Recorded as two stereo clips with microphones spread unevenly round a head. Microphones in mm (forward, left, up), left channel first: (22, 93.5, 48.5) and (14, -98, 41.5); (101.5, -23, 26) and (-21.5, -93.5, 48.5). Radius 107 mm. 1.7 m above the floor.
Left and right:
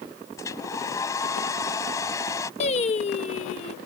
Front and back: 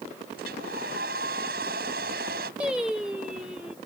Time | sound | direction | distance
0.4 | a hair dryer | 165° left | ?
2.6 | singing | 135° left | ?